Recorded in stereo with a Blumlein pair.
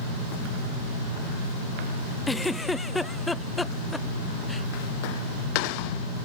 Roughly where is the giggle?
Ahead.